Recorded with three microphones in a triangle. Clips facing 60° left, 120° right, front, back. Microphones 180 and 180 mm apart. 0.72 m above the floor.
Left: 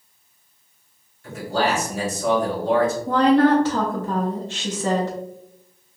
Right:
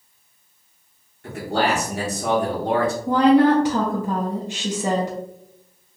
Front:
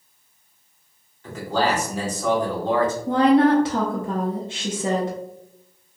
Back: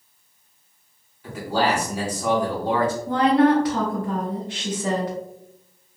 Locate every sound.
1.2 s a man speaking: 100° right, 1.4 m
3.1 s a woman speaking: 50° right, 0.6 m